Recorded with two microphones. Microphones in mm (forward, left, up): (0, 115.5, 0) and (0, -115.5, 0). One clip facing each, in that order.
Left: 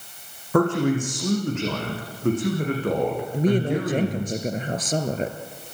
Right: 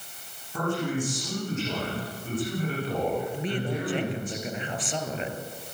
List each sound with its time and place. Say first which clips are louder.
0.5 s a man speaking: left 8 dB; 75° left (ahead or behind), 9.5 m
3.3 s a woman speaking: left 8 dB; 45° left (ahead or behind), 2.5 m